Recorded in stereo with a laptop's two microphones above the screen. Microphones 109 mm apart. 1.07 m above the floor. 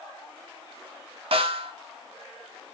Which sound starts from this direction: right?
A snare drum, at 1.3 s.